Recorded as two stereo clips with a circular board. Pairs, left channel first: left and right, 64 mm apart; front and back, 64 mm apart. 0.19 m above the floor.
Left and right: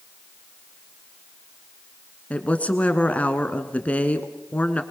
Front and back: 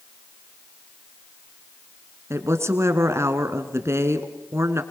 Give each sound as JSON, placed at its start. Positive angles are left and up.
{"t": 2.3, "sound": "a woman speaking", "azimuth_deg": 155, "distance_m": 1.8}